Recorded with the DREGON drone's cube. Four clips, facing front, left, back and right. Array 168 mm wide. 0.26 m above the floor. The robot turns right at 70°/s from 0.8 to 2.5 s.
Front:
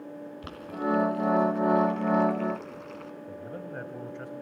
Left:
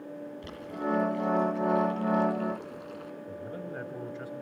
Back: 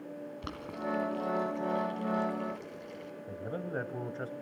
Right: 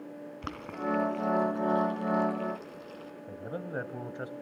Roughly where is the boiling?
Right.